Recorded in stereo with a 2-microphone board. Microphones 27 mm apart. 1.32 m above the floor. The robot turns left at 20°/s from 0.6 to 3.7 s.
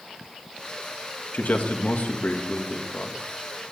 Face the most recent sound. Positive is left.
turn(degrees=30)